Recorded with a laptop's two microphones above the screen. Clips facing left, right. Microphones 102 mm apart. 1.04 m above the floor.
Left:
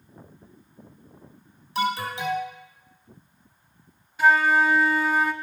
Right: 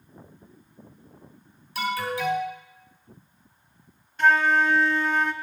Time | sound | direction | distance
1.8 | an alarm | 25° left (ahead or behind) | 3.5 m
4.2 | a flute | 5° left (ahead or behind) | 0.6 m